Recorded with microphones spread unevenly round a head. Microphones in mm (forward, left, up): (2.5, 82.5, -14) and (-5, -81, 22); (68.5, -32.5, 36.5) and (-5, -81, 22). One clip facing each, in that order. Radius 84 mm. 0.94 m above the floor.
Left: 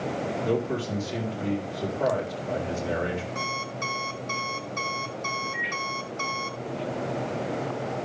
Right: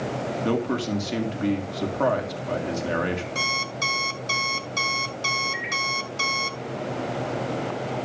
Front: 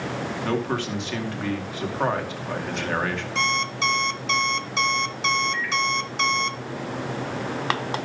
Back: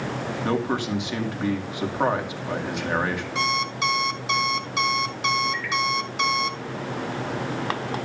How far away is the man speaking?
About 2.5 m.